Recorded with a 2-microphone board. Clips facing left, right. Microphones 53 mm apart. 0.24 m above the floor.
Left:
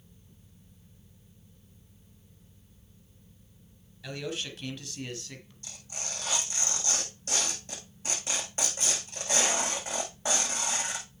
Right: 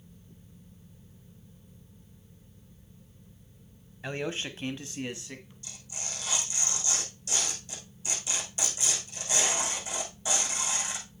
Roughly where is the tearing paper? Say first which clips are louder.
Left 4 dB; left.